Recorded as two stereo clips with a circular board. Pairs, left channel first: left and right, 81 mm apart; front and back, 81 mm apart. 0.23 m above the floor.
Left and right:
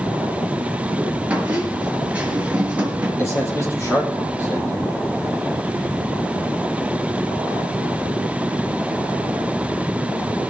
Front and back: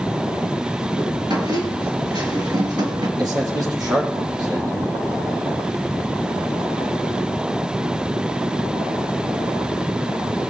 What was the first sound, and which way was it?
A squeak, 160° right.